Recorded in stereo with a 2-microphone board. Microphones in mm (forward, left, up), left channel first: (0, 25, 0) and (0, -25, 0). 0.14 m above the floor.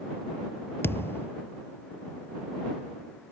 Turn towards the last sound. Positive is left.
turn(degrees=55)  # may be behind; listen again after turning